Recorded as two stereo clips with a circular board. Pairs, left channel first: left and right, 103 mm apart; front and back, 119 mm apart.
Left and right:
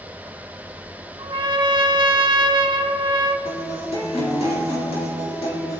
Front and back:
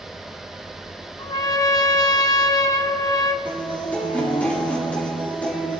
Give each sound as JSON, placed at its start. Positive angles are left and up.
{"t": 1.2, "sound": "a trumpet", "azimuth_deg": -55, "distance_m": 0.7}
{"t": 3.5, "sound": "a guitar", "azimuth_deg": 75, "distance_m": 4.0}